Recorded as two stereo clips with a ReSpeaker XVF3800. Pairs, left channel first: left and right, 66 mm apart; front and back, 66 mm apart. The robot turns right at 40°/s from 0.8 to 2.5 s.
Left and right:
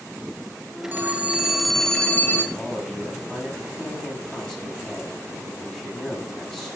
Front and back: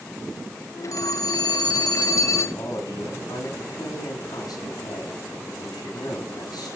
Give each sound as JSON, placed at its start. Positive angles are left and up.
{"t": 0.9, "sound": "a phone ringing", "azimuth_deg": -30, "distance_m": 2.5}
{"t": 2.5, "sound": "a man speaking", "azimuth_deg": 10, "distance_m": 6.0}